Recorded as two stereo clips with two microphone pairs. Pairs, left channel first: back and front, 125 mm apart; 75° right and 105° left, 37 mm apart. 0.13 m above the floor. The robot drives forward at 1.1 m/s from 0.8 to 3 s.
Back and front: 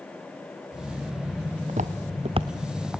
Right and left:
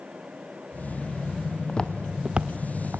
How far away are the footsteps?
About 1.5 m.